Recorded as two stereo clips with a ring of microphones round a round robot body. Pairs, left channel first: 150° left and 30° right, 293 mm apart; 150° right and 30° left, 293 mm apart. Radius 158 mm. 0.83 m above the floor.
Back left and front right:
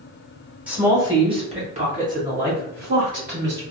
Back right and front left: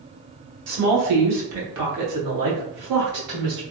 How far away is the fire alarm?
I don't hear a fire alarm.